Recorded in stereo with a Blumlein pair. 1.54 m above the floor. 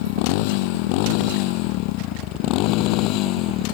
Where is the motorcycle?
45° left; by 3.7 s 40° left.